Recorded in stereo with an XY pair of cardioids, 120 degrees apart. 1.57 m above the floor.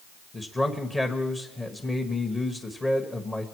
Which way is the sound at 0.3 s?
15° left.